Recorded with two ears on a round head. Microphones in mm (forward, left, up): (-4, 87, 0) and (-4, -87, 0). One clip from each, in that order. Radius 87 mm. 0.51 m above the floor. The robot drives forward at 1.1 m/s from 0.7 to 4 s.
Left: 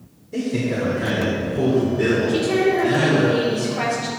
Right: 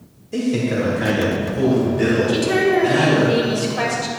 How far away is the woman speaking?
About 2.5 m.